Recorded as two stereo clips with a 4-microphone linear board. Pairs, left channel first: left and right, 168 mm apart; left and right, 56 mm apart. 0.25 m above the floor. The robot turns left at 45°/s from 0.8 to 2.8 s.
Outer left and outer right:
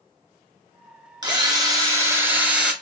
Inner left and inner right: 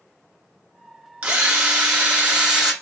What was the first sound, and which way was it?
A drill, 25° right (ahead or behind).